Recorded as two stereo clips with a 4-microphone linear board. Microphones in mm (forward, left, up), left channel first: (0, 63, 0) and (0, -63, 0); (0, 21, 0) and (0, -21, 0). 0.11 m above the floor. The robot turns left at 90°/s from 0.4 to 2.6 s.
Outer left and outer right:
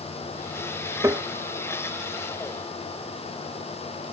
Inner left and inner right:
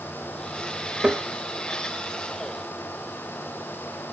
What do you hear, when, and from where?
1.0 s tapping: 25° right (ahead or behind), 0.6 m; by 1.3 s 10° right (ahead or behind), 0.6 m